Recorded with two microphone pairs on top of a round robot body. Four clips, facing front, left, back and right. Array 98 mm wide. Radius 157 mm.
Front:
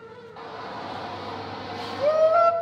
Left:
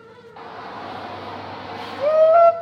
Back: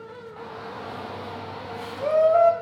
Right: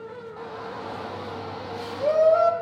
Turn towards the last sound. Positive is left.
turn(degrees=70)